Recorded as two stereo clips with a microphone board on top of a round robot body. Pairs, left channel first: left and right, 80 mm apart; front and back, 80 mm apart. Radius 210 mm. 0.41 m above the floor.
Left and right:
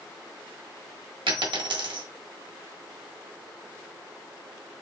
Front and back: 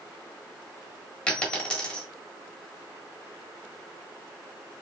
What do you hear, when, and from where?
1.3 s a dropped coin: 80° right, 1.4 m